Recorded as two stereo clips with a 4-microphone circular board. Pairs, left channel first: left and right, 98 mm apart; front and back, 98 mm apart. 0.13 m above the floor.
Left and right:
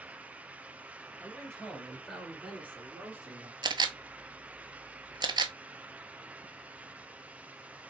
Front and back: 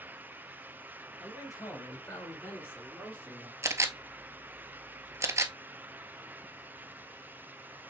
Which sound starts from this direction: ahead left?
A man speaking, at 1.2 s.